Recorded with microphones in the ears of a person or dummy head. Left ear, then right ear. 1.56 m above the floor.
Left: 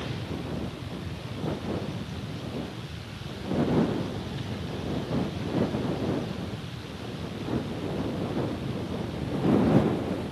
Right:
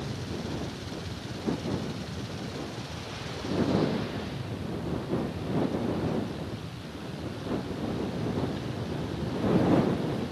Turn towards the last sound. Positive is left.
turn(degrees=55)  # may be behind; listen again after turning